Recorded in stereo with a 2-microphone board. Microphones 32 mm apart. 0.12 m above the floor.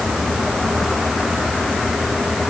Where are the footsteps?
I don't hear footsteps.